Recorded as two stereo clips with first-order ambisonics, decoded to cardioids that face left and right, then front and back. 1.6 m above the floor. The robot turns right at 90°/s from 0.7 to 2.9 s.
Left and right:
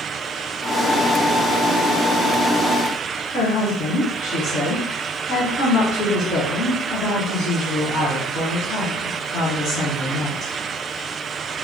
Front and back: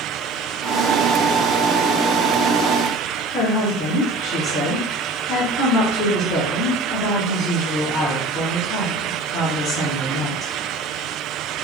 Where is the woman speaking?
40° left, 1.2 m.